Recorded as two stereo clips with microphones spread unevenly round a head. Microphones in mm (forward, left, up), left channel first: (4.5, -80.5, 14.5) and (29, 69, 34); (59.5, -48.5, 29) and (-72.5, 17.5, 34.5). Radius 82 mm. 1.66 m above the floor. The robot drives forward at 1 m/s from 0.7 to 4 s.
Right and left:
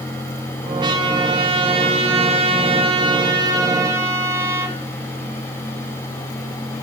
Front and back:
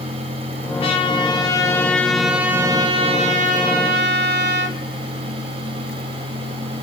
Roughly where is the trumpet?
Ahead left.